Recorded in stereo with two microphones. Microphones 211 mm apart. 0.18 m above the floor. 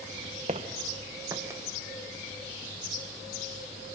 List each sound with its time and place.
0.5 s footsteps: 35° right (ahead or behind), 1.1 m; by 1.6 s 15° right (ahead or behind), 1.6 m